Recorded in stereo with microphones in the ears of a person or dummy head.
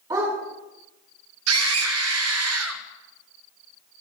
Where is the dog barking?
20° right (ahead or behind), 5.5 m.